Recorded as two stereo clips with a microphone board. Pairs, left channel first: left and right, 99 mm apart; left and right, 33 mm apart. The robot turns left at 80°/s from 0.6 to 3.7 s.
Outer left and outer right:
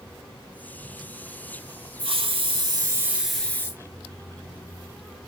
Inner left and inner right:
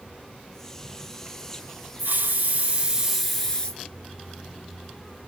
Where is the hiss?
75° right, 0.9 m; by 3.8 s 150° left, 0.9 m.